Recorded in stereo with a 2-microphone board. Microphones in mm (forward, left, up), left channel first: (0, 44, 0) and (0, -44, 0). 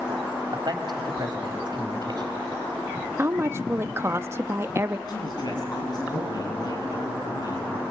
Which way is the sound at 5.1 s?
50° left (ahead or behind).